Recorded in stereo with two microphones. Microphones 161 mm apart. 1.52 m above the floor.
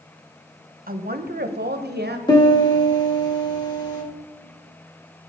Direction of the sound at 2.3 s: 25° left (ahead or behind).